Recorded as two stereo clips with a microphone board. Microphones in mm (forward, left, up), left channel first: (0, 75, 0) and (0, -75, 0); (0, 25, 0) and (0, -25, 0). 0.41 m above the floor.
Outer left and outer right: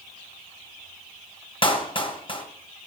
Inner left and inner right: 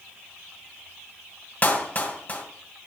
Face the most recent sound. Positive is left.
turn(degrees=35)  # may be behind; listen again after turning